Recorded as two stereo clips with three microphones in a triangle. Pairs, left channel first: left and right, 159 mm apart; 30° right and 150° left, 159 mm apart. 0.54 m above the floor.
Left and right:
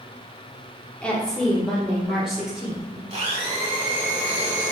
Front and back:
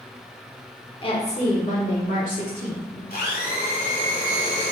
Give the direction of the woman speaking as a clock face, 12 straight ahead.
12 o'clock.